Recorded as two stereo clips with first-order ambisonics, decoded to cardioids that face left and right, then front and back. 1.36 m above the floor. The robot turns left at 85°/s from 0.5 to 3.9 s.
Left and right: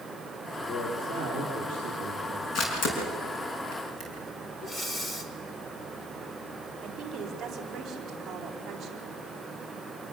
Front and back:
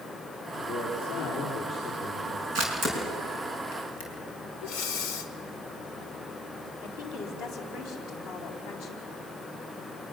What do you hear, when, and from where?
0.6 s a man speaking: 10° left, 3.5 m; by 2.5 s 150° right, 3.5 m
2.5 s a camera shutter: 135° left, 5.5 m; by 4.1 s 25° left, 5.5 m
4.6 s breathing: 15° left, 1.5 m
6.8 s a woman speaking: 20° right, 4 m